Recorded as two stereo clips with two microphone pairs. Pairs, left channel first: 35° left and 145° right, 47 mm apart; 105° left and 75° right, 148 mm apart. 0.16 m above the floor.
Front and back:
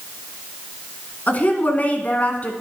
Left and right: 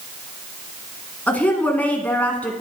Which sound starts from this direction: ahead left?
A woman speaking, at 1.3 s.